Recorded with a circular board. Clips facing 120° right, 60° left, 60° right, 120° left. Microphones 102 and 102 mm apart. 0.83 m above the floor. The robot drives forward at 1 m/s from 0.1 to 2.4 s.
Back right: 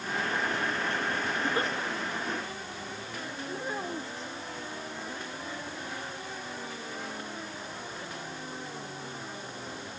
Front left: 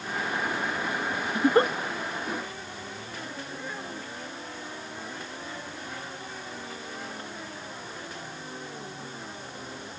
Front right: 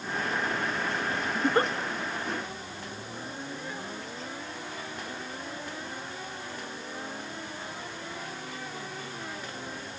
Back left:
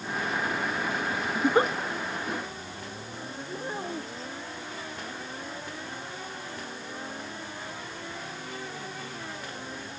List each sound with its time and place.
1.4 s a giggle: 40° left; by 1.7 s 50° left
3.5 s a child speaking: 175° left